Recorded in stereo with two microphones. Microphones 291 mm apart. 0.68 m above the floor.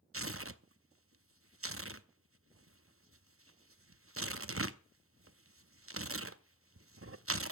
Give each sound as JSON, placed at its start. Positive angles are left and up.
{"t": 0.1, "sound": "tearing paper", "side_deg": -50, "distance_m": 0.7}